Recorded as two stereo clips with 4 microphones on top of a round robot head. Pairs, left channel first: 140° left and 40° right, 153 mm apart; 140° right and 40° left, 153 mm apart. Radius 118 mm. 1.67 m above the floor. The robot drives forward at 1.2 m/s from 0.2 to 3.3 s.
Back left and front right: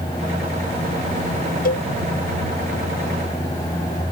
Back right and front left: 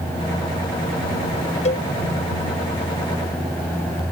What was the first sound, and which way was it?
A cowbell, 170° left.